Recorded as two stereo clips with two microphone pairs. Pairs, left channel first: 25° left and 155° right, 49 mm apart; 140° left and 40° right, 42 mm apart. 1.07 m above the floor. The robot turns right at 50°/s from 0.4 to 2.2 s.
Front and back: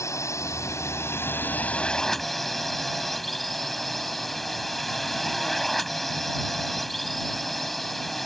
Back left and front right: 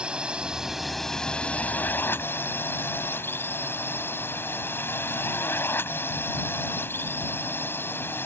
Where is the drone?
25° left; by 8.3 s 115° left.